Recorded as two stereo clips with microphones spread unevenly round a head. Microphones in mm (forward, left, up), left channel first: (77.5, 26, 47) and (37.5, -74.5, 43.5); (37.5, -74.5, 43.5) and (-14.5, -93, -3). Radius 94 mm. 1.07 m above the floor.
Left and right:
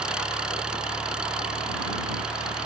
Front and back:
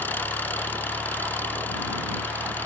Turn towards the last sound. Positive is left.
turn(degrees=-30)